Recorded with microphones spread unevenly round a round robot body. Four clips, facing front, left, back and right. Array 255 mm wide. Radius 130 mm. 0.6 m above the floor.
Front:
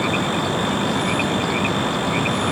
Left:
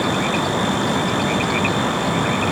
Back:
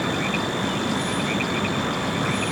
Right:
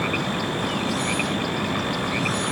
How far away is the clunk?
I don't hear a clunk.